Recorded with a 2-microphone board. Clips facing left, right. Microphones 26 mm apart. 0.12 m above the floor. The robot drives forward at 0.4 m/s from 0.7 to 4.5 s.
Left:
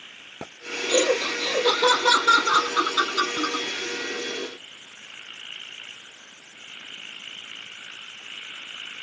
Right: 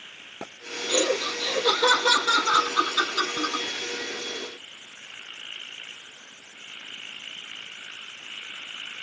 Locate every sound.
0.9 s laughter: 20° left (ahead or behind), 3.5 m; by 3.6 s 15° left (ahead or behind), 4.5 m